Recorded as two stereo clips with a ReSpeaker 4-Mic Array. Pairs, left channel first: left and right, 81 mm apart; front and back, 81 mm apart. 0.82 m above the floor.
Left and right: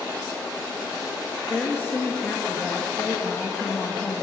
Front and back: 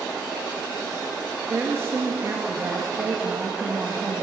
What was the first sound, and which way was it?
A woman speaking, 135° left.